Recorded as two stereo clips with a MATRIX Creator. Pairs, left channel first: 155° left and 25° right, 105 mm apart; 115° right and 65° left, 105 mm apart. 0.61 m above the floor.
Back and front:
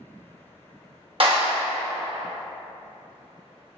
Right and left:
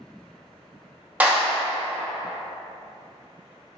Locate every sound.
1.2 s a clap: 5° right, 0.9 m